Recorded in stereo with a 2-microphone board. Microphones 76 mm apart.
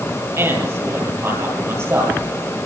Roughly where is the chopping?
I don't hear chopping.